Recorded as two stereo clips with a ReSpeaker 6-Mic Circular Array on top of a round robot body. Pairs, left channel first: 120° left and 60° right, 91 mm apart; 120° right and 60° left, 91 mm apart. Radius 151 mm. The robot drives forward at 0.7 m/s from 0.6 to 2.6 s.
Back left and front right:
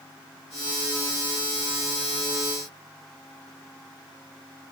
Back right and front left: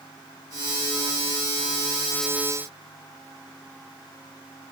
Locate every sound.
Only background noise.